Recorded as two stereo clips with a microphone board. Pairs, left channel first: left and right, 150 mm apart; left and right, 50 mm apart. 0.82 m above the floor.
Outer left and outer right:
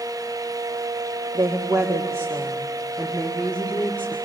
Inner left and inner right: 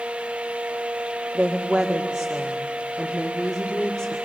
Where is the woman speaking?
30° right (ahead or behind), 1.9 m; by 4.2 s 15° left (ahead or behind), 2.5 m.